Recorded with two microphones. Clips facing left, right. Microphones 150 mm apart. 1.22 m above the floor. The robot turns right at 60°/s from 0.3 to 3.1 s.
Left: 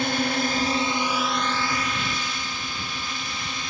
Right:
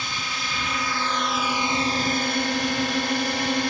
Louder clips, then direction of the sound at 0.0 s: Left 10 dB; 120° left.